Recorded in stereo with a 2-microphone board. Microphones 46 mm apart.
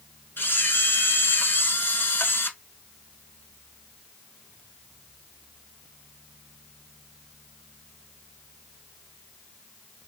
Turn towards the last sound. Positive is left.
turn(degrees=60)  # may be behind; listen again after turning